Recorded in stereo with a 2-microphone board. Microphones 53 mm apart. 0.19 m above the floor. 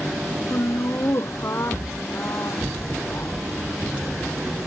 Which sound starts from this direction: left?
Laughter, at 0.5 s.